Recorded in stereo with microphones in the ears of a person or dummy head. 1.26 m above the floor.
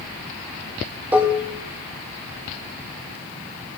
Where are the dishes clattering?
10° right (ahead or behind), 1.3 m.